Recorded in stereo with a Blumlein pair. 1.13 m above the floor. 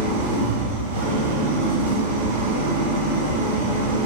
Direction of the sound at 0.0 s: 65° right.